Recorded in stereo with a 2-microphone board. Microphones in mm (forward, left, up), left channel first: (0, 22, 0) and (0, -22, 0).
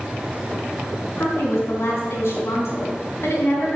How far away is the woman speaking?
About 5 m.